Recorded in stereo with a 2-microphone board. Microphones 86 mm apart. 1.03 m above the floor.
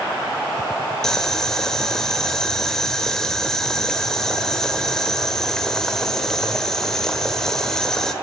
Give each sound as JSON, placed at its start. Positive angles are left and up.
{"t": 1.0, "sound": "boiling", "side_deg": 5, "distance_m": 0.8}